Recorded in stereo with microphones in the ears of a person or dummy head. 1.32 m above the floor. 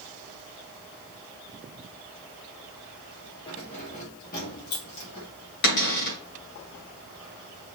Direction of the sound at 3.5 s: 30° left (ahead or behind).